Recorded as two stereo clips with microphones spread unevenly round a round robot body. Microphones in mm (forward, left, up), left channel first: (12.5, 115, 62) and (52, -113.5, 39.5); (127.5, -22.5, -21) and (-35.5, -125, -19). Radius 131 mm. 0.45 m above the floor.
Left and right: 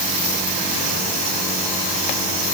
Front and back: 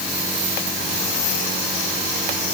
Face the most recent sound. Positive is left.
No sound to turn to.